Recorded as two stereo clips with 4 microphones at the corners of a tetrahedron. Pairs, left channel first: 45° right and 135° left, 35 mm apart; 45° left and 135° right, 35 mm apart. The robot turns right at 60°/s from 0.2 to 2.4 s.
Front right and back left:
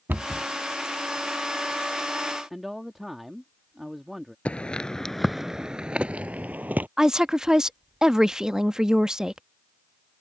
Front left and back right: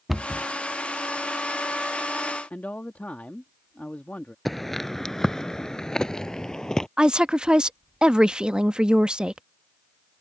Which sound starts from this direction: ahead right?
Footsteps, at 4.5 s.